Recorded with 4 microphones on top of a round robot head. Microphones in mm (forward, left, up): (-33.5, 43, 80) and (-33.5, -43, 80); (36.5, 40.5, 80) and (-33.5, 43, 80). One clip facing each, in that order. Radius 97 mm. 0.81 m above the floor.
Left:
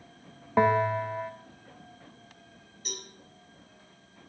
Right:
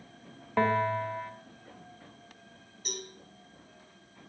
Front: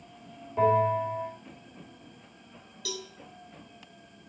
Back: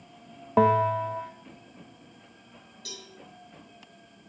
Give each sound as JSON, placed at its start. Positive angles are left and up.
{"t": 0.6, "sound": "a bell", "azimuth_deg": 165, "distance_m": 1.0}
{"t": 2.9, "sound": "a cowbell", "azimuth_deg": 0, "distance_m": 2.5}